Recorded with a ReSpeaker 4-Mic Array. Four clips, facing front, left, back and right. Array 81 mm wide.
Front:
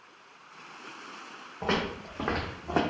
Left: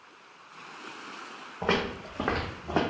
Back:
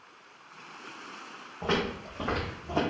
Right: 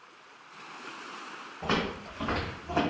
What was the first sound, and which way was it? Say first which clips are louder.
Footsteps: left 2 dB, even; 75° left.